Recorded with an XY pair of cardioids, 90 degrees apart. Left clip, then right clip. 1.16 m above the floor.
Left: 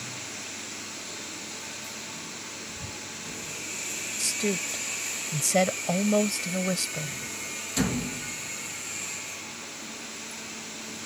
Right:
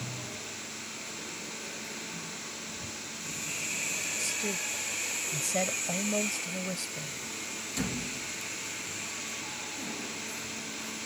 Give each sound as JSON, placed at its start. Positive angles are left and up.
{"t": 4.2, "sound": "a woman speaking", "azimuth_deg": 60}